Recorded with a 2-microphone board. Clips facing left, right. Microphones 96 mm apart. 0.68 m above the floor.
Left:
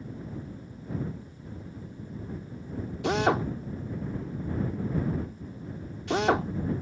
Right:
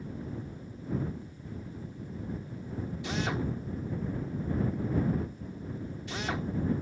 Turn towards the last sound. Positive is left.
turn(degrees=65)  # may be behind; listen again after turning